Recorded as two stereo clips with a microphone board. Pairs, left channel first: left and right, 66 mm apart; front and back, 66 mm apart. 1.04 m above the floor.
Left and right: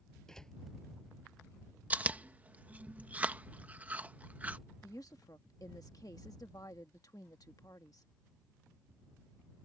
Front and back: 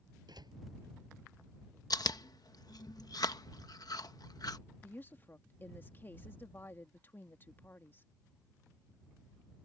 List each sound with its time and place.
0.3 s a door slam: 170° left
1.9 s chewing: 20° right
4.8 s a woman speaking: 60° left